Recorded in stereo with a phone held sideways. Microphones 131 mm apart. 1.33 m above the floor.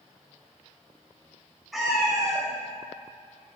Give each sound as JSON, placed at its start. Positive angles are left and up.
{"t": 1.7, "sound": "a cat meowing", "side_deg": 0, "distance_m": 1.6}